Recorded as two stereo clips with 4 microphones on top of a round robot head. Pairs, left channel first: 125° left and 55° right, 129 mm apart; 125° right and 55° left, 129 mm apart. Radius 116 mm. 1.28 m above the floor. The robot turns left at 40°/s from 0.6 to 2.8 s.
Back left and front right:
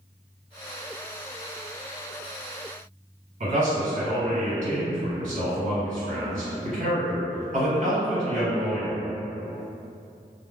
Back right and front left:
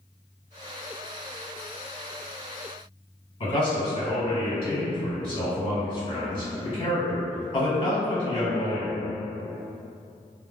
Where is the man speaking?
85° right, 1.5 m.